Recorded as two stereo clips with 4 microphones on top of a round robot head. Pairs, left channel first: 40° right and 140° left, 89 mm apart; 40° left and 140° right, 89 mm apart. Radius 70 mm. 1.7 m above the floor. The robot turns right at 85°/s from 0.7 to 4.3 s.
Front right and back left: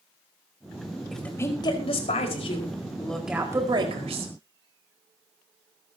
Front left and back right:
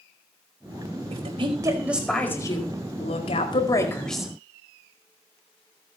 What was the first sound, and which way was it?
A woman speaking, 130° right.